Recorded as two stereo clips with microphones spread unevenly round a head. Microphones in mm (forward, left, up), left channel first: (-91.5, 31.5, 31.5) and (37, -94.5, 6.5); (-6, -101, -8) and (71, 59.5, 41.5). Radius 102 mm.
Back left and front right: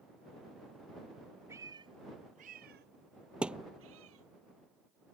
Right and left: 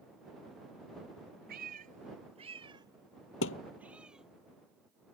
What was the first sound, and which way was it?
A cat meowing, 35° left.